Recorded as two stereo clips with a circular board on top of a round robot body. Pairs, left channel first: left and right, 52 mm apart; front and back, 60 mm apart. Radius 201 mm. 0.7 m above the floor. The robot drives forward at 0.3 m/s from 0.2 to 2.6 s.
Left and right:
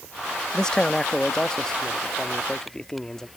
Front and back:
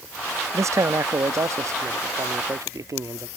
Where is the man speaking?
165° left.